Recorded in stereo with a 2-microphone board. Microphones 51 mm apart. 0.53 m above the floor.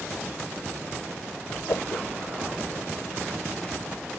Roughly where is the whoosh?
Left.